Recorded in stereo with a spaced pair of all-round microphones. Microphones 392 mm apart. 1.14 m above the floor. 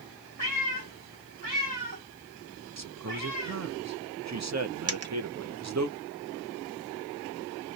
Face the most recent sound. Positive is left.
turn(degrees=-40)  # may be behind; listen again after turning